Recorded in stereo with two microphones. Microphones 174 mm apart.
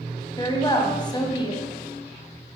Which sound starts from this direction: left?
A woman speaking, at 0.4 s.